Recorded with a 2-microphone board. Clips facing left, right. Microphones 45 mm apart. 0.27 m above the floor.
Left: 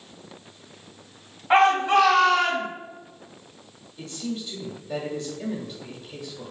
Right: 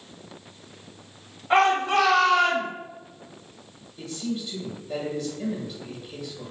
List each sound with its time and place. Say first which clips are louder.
1.5 s a shout: left 2 dB; 15° left (ahead or behind), 1.2 m; by 2.7 s 15° right (ahead or behind), 1.2 m
4.0 s a man speaking: right 1 dB; 5° right (ahead or behind), 1.5 m